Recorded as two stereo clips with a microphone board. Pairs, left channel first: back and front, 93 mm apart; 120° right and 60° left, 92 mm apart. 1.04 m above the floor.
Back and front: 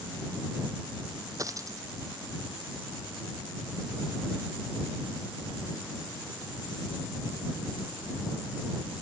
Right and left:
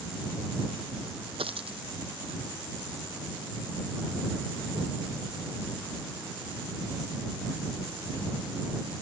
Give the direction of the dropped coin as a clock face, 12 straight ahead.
10 o'clock.